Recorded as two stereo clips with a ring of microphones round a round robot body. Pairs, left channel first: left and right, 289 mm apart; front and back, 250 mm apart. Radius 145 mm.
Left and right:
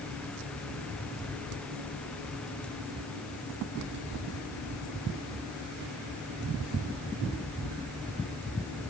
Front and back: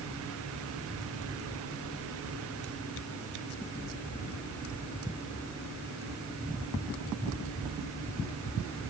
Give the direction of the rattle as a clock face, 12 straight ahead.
No rattle in this recording.